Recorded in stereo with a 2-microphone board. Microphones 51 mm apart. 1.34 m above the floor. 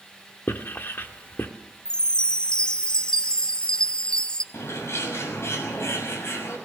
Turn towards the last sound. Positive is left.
turn(degrees=60)  # may be behind; listen again after turning